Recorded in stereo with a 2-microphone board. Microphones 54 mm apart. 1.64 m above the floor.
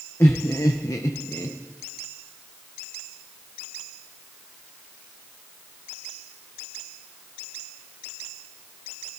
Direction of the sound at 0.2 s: 55° left (ahead or behind).